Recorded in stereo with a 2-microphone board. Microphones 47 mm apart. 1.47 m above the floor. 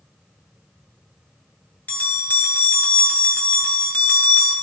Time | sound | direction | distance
1.9 | a bell | 40° left (ahead or behind) | 1.6 m